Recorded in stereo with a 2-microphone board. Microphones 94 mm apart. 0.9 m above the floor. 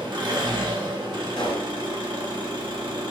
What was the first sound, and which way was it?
An engine running, 50° right (ahead or behind).